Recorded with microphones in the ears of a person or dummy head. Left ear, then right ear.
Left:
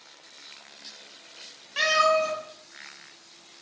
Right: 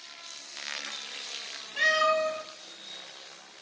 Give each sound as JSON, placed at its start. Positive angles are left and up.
{"t": 1.8, "sound": "a cat meowing", "side_deg": 60, "distance_m": 3.5}